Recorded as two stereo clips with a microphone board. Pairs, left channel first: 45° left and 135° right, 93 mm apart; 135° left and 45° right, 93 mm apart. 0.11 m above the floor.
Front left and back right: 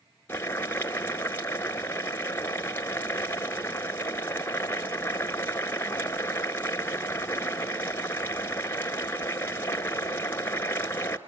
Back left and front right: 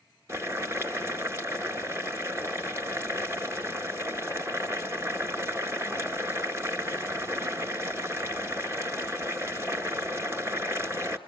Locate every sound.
0.3 s boiling: 5° right, 1.8 m